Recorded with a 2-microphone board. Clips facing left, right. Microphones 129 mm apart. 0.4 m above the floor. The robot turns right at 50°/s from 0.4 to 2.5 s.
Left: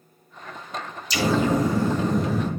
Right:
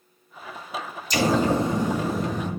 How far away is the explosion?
About 0.6 m.